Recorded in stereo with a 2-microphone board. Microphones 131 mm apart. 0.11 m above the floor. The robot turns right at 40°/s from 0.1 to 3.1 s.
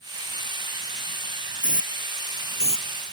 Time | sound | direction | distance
1.6 | a hiss | 80° left | ?